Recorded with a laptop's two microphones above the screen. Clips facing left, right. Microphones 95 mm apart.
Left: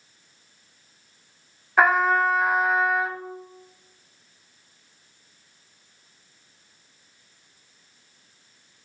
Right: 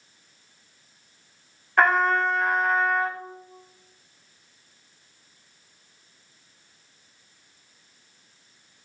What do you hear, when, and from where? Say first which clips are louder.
1.8 s a trumpet: left 1 dB; 5° left (ahead or behind), 0.9 m